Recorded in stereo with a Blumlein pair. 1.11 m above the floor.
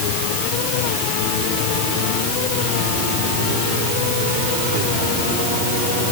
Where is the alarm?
I don't hear an alarm.